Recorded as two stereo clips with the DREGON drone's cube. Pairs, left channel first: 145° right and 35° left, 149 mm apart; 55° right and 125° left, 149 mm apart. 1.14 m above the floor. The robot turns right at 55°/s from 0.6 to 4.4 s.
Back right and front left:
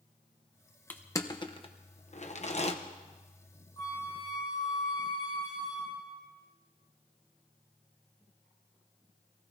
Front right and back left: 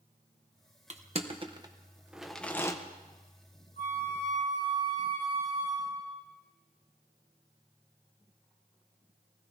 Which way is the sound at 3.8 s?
85° right.